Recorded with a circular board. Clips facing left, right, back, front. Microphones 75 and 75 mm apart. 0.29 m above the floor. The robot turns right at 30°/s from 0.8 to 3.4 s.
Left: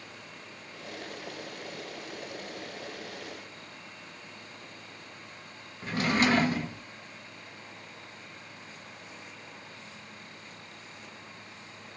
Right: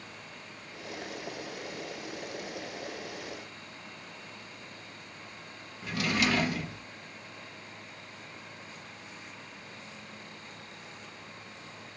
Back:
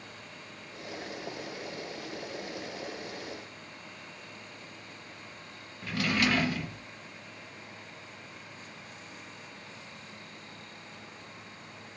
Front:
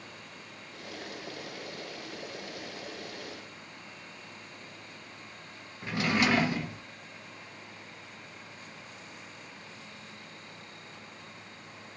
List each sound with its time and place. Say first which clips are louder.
5.8 s a drawer: left 3 dB, front 1 dB; 60° left, 0.7 m